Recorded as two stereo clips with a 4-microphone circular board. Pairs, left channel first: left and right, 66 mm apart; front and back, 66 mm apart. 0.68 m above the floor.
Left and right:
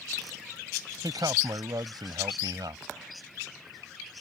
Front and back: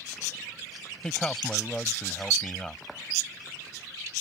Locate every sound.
1.0 s a man speaking: 80° right